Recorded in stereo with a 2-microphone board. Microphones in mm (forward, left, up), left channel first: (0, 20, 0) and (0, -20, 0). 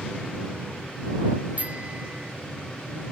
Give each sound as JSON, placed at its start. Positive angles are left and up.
{"t": 1.6, "sound": "a bicycle bell", "side_deg": -35}